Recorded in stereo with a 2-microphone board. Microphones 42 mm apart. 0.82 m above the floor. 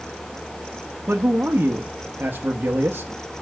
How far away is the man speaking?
About 0.8 m.